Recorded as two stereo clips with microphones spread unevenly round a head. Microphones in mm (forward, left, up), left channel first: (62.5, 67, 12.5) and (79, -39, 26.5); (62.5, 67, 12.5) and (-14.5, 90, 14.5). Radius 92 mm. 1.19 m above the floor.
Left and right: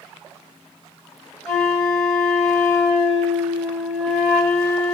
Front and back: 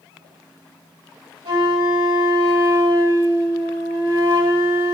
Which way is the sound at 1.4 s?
175° right.